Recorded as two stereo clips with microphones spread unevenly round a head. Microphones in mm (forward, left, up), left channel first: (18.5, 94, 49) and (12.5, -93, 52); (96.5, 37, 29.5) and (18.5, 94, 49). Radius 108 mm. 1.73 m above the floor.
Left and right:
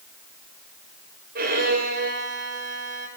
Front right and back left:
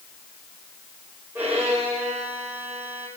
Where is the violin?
140° right, 5.5 m.